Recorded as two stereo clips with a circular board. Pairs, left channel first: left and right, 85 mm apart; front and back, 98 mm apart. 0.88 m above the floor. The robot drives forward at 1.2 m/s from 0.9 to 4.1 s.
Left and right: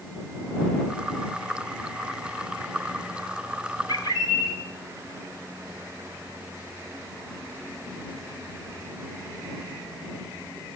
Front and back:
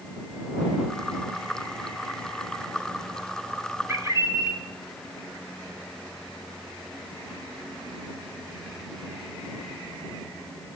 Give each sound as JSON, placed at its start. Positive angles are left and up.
{"t": 3.9, "sound": "a bird", "azimuth_deg": 115, "distance_m": 1.8}